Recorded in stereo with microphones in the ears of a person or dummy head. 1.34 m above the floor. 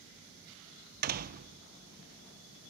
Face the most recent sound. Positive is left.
turn(degrees=-45)  # may be behind; listen again after turning